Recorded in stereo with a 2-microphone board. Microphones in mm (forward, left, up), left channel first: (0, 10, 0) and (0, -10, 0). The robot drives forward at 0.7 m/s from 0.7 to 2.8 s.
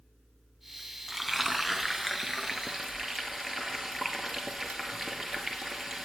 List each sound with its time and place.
1.1 s frying: centre (ahead or behind), 0.7 m